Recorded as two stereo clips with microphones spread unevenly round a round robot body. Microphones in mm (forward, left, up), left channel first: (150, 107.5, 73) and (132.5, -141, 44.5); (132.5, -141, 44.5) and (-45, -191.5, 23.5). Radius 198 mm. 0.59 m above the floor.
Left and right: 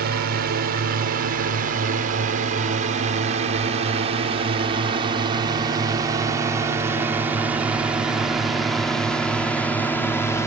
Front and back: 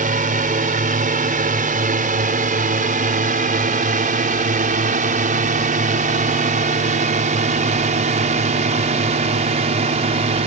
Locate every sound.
0.0 s a drone: 135° right; by 10.5 s 170° left